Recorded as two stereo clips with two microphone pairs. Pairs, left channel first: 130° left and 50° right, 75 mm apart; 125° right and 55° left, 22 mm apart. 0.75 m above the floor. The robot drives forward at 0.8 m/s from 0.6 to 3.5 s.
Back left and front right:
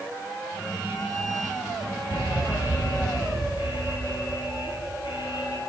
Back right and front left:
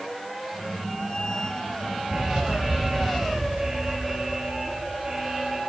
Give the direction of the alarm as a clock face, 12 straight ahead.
8 o'clock.